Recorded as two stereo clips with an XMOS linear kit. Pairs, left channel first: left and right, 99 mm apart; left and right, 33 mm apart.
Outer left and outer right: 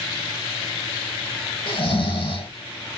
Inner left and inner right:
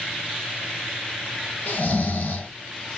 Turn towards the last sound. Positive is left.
turn(degrees=50)  # may be behind; listen again after turning